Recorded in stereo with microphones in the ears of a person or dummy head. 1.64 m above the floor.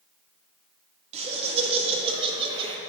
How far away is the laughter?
About 3 m.